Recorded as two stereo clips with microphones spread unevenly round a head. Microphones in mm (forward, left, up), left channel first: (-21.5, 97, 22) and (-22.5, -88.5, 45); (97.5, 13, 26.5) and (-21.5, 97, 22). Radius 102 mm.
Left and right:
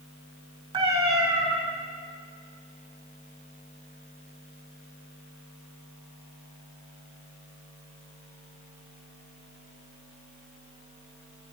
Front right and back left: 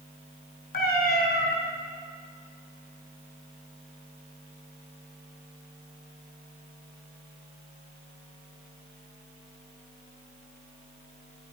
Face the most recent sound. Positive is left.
turn(degrees=-25)